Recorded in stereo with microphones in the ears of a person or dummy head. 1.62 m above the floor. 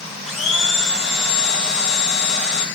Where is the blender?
Centre (ahead or behind), 1.8 m.